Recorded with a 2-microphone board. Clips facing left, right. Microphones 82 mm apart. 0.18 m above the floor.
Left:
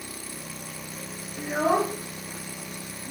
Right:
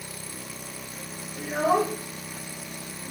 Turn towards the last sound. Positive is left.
turn(degrees=45)  # may be behind; listen again after turning